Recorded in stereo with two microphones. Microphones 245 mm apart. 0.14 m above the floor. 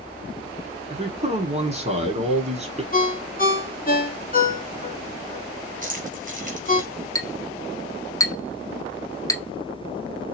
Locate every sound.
0.9 s a man speaking: 25° right (ahead or behind), 1.2 m
2.9 s a ringtone: 35° left (ahead or behind), 1.1 m
5.8 s keys jangling: 35° right (ahead or behind), 2.0 m
7.2 s a clink: 15° left (ahead or behind), 0.7 m